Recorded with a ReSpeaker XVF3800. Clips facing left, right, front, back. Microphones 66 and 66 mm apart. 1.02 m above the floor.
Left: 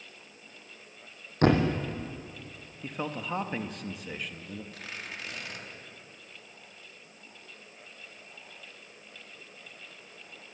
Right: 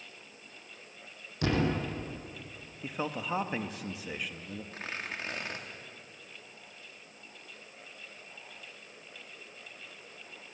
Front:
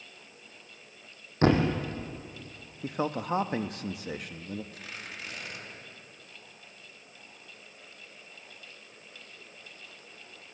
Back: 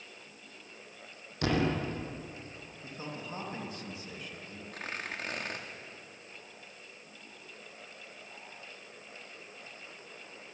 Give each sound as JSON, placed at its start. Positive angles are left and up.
{"t": 1.4, "sound": "a thud", "azimuth_deg": 50, "distance_m": 3.5}
{"t": 2.8, "sound": "a man speaking", "azimuth_deg": -5, "distance_m": 1.3}
{"t": 4.7, "sound": "tearing paper", "azimuth_deg": -140, "distance_m": 2.5}